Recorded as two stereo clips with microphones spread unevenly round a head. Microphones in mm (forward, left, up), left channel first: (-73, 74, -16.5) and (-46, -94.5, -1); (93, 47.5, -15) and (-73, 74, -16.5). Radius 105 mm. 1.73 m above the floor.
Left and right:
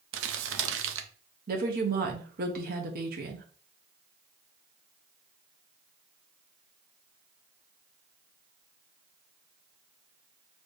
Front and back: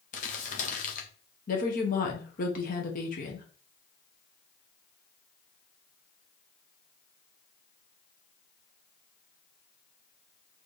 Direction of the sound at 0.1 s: 65° right.